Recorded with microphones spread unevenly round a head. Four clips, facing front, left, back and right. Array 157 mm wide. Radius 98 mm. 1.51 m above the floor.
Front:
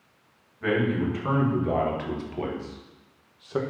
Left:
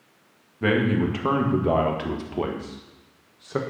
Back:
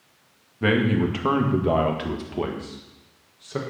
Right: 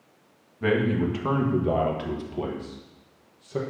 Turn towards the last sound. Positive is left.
turn(degrees=85)